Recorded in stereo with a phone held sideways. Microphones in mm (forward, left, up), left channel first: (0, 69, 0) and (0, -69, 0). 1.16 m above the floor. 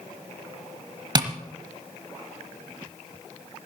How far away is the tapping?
About 1.1 m.